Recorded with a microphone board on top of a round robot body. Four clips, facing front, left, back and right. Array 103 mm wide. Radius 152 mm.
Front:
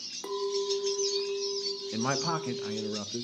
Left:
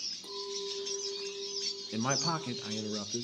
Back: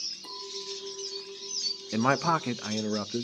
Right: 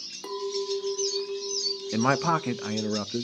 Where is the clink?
45° right, 2.0 m.